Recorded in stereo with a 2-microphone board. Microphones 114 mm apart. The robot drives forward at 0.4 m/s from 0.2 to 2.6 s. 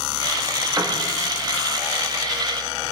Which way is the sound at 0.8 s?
15° right (ahead or behind).